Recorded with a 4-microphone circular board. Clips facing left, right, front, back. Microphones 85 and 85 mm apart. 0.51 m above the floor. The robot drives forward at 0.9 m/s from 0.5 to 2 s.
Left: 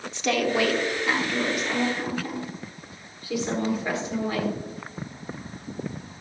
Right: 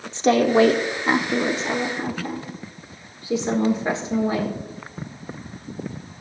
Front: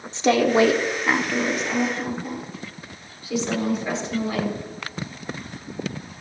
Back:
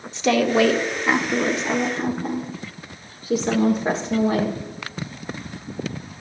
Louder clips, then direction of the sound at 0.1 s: Right 8 dB, front 1 dB; 45° right.